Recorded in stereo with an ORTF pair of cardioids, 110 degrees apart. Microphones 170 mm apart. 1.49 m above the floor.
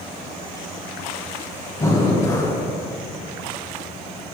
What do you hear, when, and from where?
1.8 s breathing: 20° left, 1.3 m